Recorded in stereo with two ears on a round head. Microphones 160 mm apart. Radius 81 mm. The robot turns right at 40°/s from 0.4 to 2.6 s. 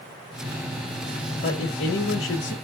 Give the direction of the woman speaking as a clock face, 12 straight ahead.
10 o'clock.